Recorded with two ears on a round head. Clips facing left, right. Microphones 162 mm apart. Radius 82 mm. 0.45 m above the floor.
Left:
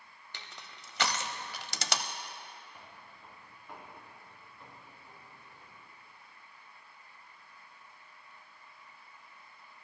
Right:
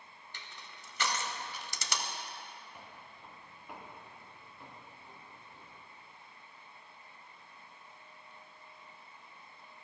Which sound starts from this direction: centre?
Footsteps, at 2.7 s.